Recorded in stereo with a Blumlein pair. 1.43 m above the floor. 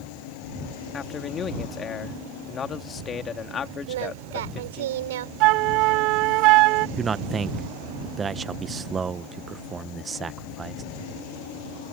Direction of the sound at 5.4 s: 40° right.